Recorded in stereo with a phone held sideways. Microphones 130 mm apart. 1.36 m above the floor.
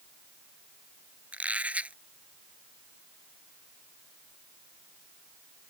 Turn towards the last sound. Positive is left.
turn(degrees=-10)  # may be behind; listen again after turning